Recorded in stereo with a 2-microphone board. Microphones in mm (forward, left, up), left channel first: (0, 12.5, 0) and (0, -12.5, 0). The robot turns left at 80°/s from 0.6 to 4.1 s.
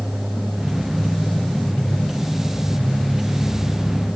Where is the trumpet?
No trumpet in this recording.